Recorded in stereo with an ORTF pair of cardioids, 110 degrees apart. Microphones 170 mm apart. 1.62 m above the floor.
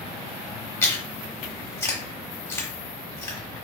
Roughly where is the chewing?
Ahead.